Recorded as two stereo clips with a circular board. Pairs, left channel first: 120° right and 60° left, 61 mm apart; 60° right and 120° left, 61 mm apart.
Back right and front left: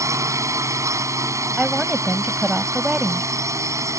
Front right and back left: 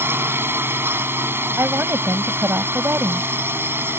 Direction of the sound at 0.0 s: 75° left.